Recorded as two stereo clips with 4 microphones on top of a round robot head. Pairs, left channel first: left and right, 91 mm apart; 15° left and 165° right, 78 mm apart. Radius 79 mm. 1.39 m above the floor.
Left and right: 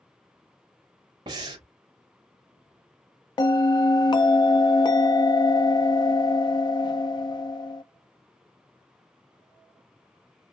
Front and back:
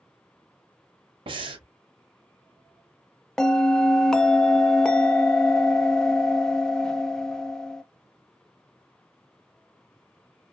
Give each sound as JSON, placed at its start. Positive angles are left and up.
{"t": 1.3, "sound": "breathing", "azimuth_deg": -140, "distance_m": 0.5}
{"t": 3.4, "sound": "a bell", "azimuth_deg": 90, "distance_m": 0.5}